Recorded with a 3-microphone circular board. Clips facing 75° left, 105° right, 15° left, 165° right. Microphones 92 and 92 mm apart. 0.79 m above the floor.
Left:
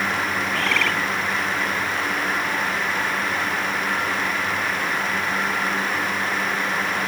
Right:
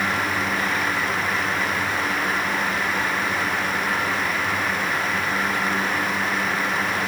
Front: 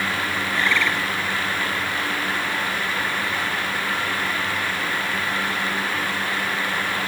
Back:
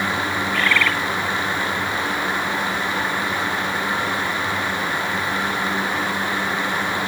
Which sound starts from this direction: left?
A bird, at 0.5 s.